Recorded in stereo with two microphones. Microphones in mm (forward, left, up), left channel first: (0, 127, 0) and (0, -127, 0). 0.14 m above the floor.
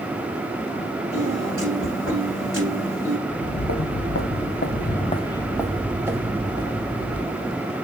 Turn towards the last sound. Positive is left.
turn(degrees=-30)  # may be behind; listen again after turning